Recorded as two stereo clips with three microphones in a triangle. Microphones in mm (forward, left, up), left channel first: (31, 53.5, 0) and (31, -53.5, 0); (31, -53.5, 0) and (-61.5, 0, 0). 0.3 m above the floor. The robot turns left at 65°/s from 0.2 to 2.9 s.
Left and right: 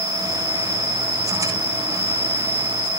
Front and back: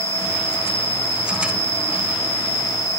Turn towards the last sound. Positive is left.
turn(degrees=-135)